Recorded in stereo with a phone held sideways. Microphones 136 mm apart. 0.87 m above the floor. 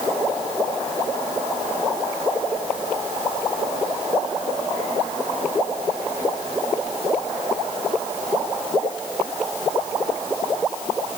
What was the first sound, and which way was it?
Only background noise.